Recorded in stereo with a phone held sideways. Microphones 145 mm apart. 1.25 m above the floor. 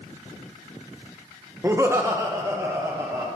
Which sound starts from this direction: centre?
Laughter, at 1.6 s.